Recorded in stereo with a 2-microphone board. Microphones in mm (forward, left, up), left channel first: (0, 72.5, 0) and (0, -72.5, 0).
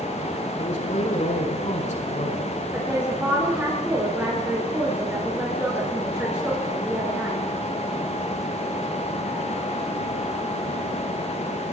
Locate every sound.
0.6 s a man speaking: 55° left (ahead or behind), 8 m
2.7 s a woman speaking: 10° right (ahead or behind), 7.5 m